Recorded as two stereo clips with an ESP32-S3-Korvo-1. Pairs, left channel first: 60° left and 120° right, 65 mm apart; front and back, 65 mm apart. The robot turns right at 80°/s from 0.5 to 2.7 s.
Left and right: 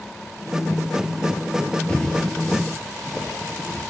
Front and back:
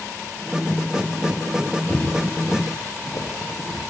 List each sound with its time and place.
1.9 s footsteps: straight ahead, 0.9 m; by 3.8 s 35° right, 2.5 m